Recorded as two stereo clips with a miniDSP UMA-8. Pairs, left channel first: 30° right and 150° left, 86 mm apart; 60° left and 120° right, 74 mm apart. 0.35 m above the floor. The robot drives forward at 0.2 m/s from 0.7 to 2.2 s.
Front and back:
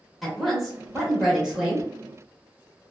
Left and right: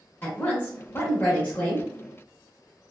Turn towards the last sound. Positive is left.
turn(degrees=110)